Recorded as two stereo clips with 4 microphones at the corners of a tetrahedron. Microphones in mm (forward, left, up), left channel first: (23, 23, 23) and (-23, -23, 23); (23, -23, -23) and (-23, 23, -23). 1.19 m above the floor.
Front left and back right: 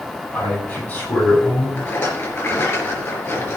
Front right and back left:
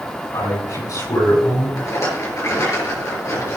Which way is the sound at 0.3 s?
20° right.